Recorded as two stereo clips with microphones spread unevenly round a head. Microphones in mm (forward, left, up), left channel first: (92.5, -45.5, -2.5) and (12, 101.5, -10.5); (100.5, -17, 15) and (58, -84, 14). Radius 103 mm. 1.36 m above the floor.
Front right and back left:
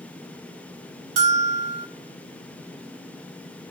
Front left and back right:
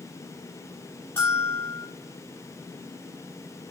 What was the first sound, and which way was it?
A bell, 135° left.